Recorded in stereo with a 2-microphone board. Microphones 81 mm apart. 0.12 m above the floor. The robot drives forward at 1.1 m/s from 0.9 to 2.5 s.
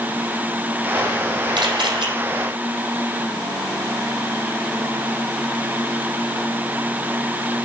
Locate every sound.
1.6 s a camera shutter: 70° right (ahead or behind), 5 m; by 2.1 s 75° right (ahead or behind), 5 m